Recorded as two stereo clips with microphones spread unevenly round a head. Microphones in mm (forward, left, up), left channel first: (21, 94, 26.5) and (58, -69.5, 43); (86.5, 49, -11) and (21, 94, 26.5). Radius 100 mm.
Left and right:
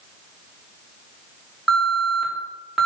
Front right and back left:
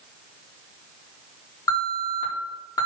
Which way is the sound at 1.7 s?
10° left.